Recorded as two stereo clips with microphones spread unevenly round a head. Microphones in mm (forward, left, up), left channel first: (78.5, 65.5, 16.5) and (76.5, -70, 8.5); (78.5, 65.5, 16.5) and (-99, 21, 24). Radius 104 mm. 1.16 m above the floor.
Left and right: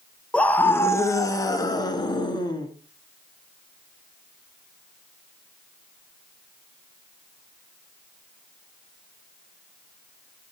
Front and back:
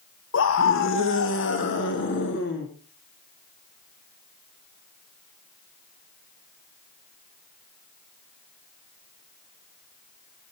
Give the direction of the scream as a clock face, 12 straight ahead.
12 o'clock.